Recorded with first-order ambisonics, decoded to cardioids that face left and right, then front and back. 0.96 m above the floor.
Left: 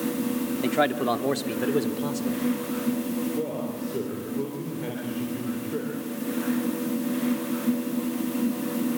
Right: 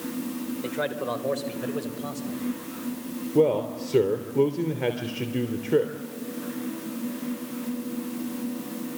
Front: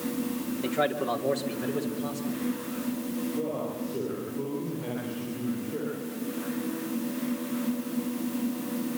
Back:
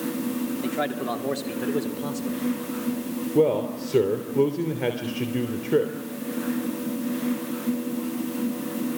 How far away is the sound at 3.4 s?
About 3 m.